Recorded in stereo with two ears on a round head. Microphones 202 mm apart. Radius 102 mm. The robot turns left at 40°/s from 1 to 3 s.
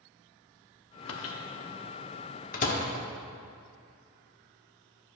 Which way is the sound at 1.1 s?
70° left (ahead or behind).